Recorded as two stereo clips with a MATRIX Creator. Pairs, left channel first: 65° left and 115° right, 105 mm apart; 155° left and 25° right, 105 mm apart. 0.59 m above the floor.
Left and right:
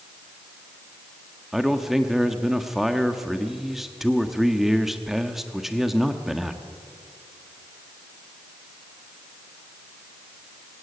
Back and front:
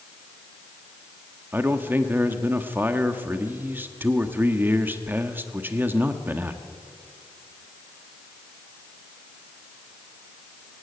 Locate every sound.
1.5 s a man speaking: 30° right, 1.2 m